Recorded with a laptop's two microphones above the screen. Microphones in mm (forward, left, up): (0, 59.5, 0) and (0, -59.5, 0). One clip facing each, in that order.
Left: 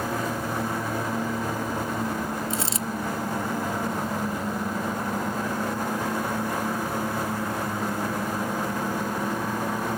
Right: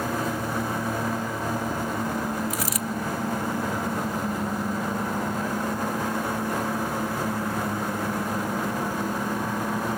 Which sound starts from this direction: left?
A dropped coin, at 2.5 s.